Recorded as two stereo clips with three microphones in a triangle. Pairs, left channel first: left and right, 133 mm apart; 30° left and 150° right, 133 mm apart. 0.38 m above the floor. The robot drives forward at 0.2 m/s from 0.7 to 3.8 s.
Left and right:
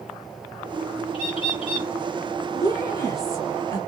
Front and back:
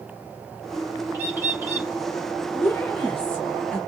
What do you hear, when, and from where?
1.1 s a bird: 135° left, 1.4 m; by 1.9 s 140° left, 1.5 m
2.5 s a woman speaking: 70° left, 1.0 m; by 3.8 s 105° left, 1.0 m